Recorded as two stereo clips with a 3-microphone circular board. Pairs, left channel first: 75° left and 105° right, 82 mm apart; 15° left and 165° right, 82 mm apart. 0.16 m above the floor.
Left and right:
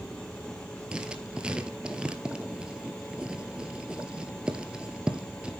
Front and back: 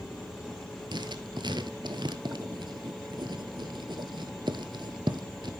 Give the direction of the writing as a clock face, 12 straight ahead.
6 o'clock.